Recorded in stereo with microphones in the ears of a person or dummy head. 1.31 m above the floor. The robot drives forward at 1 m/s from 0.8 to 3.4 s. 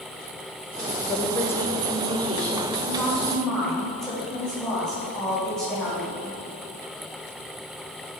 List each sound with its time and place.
1.1 s a woman speaking: 20° left (ahead or behind), 0.8 m; by 6.2 s 5° left (ahead or behind), 3 m